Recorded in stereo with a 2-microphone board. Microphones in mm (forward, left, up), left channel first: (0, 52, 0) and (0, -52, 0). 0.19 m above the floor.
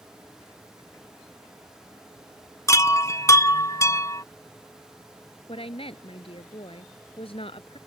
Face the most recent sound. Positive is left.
turn(degrees=65)  # may be behind; listen again after turning